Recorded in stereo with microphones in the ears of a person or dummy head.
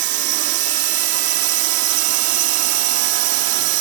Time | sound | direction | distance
0.0 | a drone | 55° right (ahead or behind) | ?